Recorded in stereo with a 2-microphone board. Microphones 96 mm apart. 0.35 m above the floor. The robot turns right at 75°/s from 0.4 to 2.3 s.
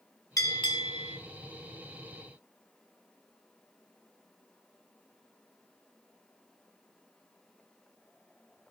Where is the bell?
40° left, 0.6 m; by 1.2 s 95° left, 0.6 m.